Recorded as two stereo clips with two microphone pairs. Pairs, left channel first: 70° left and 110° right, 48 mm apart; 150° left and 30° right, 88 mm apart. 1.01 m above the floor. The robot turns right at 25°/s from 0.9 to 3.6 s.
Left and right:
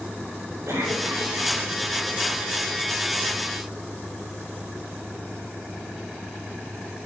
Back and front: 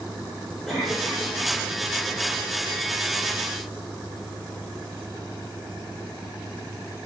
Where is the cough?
120° right, 4.5 m; by 1.5 s 105° right, 4.5 m.